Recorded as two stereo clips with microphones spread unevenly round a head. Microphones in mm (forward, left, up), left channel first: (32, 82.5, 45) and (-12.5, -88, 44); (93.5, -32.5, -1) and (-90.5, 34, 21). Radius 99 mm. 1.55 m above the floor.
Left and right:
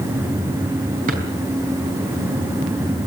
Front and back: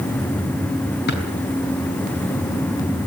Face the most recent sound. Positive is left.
turn(degrees=-60)